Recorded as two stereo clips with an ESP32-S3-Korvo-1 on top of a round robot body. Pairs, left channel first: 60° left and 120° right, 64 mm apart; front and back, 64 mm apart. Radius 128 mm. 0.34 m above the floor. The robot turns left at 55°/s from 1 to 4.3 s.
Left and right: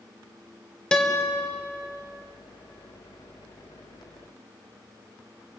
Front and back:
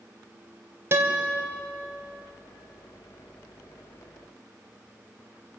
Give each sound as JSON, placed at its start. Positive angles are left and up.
{"t": 0.9, "sound": "a guitar", "azimuth_deg": 135, "distance_m": 3.0}